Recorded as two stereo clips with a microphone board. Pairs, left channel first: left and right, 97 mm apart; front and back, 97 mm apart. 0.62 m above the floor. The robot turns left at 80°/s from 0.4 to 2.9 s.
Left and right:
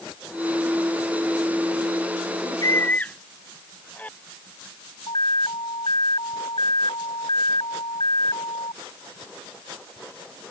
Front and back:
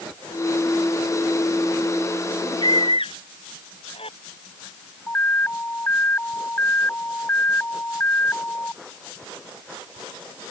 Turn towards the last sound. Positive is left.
turn(degrees=70)